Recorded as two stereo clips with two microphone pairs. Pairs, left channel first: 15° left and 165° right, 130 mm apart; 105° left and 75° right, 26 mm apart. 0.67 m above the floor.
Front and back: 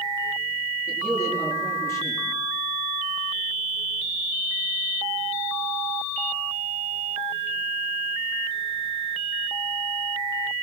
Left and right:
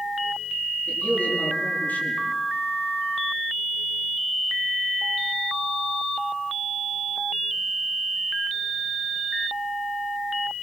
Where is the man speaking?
85° left, 9.5 m.